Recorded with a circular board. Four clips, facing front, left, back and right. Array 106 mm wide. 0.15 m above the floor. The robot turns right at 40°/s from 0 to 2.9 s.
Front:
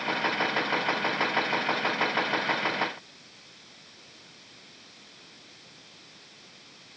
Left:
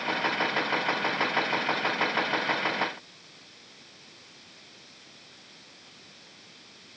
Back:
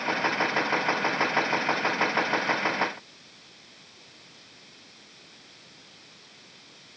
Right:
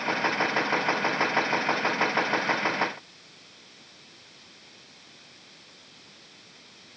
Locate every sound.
Only background noise.